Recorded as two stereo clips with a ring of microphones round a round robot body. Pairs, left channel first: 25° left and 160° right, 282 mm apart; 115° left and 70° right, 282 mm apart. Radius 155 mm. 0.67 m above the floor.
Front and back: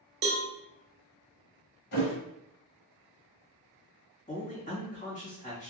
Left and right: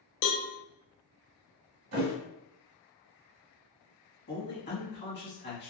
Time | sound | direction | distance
0.2 | a cowbell | 145° left | 0.6 m
1.9 | a thud | 30° right | 1.0 m
4.3 | a man speaking | 75° left | 1.5 m